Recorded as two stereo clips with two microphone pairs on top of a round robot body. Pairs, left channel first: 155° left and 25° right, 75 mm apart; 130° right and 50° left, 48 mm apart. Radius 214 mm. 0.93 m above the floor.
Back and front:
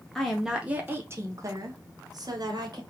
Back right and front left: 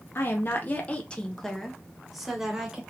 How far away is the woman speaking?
About 1.0 m.